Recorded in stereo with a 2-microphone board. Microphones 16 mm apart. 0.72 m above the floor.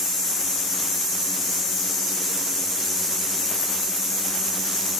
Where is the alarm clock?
I don't hear an alarm clock.